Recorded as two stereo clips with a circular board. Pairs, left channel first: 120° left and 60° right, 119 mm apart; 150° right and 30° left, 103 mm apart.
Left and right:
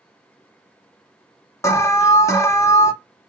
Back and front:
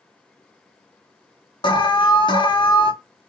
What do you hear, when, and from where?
1.6 s an alarm: straight behind, 0.8 m